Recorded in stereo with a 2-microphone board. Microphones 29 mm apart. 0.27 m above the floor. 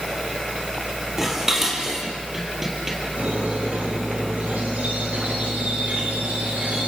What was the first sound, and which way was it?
Dishes clattering, 15° right (ahead or behind).